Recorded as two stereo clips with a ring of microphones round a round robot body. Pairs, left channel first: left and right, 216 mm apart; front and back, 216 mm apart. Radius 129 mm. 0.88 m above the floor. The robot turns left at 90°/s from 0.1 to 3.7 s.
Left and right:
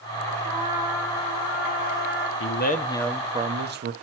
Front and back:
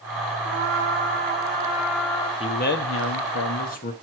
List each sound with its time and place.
0.5 s a trumpet: 135° right, 2.5 m; by 2.3 s 60° left, 2.5 m
2.4 s a man speaking: 65° left, 1.0 m; by 3.9 s 50° right, 1.0 m